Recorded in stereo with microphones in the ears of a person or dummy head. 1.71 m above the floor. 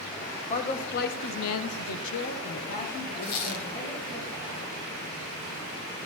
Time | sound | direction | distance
0.5 | a man speaking | 40° left (ahead or behind) | 1.8 m
3.2 | a squeak | 55° left (ahead or behind) | 2.5 m